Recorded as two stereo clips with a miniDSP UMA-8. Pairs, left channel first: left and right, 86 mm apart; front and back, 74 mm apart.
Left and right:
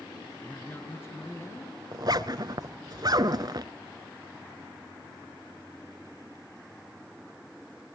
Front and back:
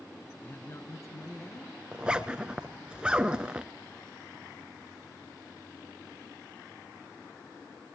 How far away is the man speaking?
About 1.3 m.